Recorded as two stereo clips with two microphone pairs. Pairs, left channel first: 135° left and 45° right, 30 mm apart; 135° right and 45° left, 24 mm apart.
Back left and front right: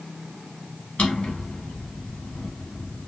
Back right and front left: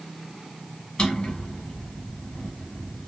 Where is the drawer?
175° right, 1.9 m.